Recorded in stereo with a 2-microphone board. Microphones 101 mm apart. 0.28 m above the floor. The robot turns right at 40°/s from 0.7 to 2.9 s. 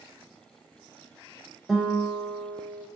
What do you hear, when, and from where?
1.7 s a guitar: centre (ahead or behind), 0.6 m; by 2.9 s 15° left (ahead or behind), 0.6 m